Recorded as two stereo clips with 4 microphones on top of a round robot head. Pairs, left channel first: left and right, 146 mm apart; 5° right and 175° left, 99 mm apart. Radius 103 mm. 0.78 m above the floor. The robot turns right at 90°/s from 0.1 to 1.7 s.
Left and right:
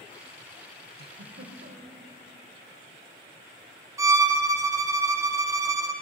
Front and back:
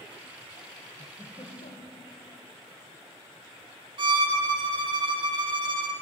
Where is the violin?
155° right, 0.8 m.